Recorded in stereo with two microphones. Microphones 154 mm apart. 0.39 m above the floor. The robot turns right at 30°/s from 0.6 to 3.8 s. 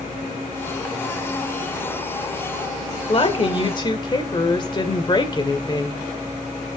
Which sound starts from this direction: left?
A woman speaking, at 3.1 s.